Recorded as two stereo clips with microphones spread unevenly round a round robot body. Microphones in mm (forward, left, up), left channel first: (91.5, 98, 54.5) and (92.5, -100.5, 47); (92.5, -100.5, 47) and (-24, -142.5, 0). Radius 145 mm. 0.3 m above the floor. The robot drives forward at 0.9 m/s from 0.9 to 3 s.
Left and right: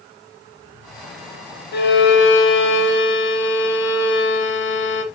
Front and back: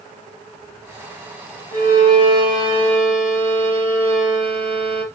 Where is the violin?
60° left, 1.4 m; by 5.0 s 115° left, 1.4 m.